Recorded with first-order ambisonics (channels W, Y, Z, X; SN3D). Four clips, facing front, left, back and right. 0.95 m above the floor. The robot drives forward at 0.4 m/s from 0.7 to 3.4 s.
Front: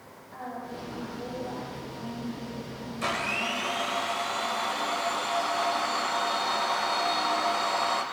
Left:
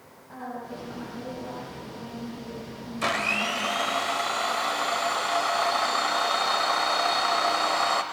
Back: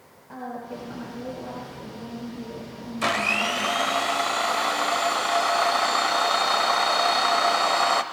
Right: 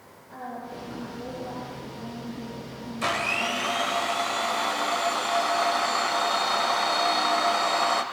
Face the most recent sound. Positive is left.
turn(degrees=175)